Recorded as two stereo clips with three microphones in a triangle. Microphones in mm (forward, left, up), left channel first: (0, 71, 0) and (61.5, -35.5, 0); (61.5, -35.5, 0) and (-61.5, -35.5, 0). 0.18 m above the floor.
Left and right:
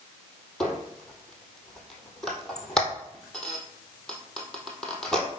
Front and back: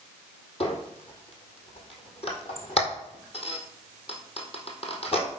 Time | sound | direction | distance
0.6 | a squeak | 35° left | 1.6 m